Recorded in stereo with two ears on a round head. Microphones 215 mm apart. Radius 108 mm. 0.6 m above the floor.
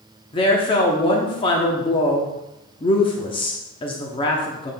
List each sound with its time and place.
0.3 s a woman speaking: 20° left (ahead or behind), 1.0 m